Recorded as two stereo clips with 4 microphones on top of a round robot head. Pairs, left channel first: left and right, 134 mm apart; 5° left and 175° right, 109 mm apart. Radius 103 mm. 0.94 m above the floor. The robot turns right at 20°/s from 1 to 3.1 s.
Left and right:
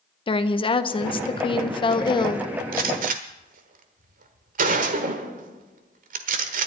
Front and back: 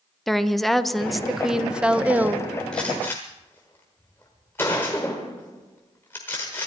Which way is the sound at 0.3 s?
95° left.